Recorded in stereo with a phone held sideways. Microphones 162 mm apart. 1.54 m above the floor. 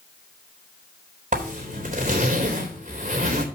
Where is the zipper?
55° right (ahead or behind), 3.5 m.